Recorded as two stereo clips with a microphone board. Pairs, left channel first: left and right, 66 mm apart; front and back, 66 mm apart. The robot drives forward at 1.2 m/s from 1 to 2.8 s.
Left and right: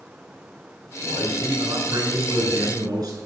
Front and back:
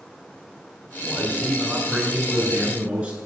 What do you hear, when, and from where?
1.0 s a man speaking: 95° right, 7 m; by 3.2 s 115° right, 7.5 m